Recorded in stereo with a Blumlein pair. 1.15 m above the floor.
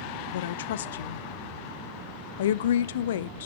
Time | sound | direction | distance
0.3 | a woman speaking | 60° left | 0.6 m